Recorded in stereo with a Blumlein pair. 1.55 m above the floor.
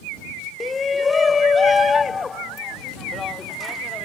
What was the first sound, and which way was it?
A shout, 15° left.